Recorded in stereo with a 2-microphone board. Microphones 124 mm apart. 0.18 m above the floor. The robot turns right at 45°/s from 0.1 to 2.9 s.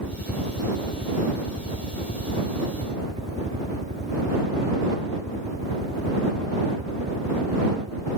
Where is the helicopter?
160° left; by 8.2 s 75° right.